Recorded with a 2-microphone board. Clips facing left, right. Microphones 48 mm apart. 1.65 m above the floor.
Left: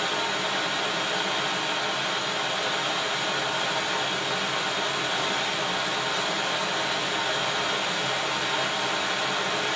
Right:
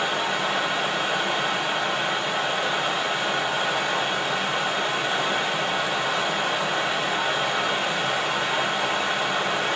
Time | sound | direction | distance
0.0 | running water | 30° right (ahead or behind) | 1.0 m